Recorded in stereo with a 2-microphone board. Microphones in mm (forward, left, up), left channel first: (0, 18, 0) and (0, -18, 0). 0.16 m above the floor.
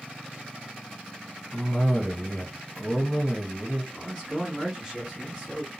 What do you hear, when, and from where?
1.5 s a cough: 45° left (ahead or behind), 2.0 m
3.9 s a man speaking: centre (ahead or behind), 1.9 m